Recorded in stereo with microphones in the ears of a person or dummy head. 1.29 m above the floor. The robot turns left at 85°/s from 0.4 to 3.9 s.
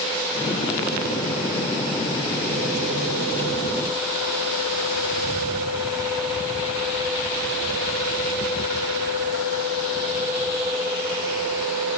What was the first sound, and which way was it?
Only background noise.